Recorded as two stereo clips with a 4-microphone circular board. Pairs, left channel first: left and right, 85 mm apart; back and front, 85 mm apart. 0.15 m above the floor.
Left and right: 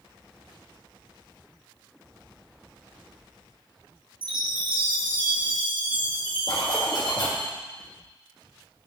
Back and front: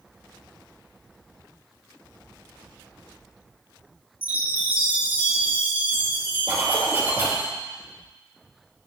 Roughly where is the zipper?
Ahead left.